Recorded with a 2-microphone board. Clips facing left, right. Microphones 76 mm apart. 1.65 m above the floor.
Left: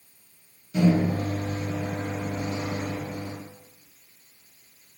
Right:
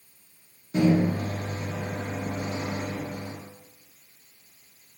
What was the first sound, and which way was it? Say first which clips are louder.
A microwave: even; 30° right (ahead or behind).